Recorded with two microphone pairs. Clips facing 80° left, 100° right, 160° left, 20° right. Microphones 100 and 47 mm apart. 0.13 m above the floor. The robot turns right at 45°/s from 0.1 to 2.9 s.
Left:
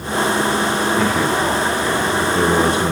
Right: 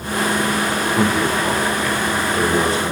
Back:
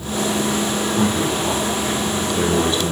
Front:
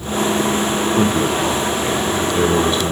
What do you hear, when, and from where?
1.0 s a man speaking: 25° right, 3.5 m; by 2.9 s 65° left, 3.5 m